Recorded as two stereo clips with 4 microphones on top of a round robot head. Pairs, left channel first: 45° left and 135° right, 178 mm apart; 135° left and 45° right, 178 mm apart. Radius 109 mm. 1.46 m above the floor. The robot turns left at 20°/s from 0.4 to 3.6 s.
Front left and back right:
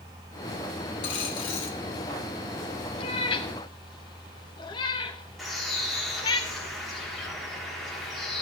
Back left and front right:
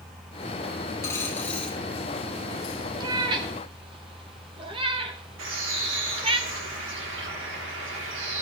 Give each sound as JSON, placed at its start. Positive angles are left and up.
{"t": 1.0, "sound": "a dropped coin", "azimuth_deg": 65, "distance_m": 1.4}
{"t": 3.0, "sound": "a cat meowing", "azimuth_deg": 10, "distance_m": 0.7}
{"t": 5.4, "sound": "a bird", "azimuth_deg": -45, "distance_m": 3.5}